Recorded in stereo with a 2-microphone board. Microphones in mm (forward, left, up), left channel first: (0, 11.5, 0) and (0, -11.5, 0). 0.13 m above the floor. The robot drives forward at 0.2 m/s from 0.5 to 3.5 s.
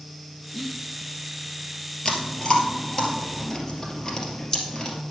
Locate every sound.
0.5 s whispering: 20° left (ahead or behind), 1.1 m
2.0 s chewing: 35° left (ahead or behind), 2 m; by 5.0 s 30° left (ahead or behind), 2.5 m